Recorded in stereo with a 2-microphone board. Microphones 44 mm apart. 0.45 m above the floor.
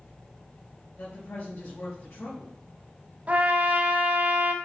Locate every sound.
1.0 s a woman speaking: 65° left (ahead or behind), 3 m
3.3 s a trumpet: 35° right (ahead or behind), 0.7 m